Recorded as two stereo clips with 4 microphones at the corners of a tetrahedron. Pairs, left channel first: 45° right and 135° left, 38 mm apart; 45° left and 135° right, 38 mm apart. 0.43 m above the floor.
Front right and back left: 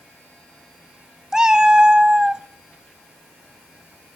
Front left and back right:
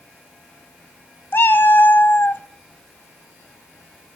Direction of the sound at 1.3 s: 65° left.